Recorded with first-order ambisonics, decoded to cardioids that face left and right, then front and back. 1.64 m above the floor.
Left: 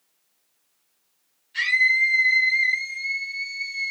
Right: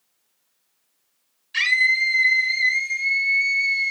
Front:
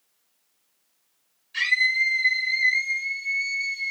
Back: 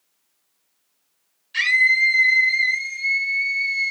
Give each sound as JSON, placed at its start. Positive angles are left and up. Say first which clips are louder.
{"t": 1.5, "sound": "a scream", "louder": "right 1 dB, back 5 dB", "azimuth_deg": -120, "distance_m": 0.6}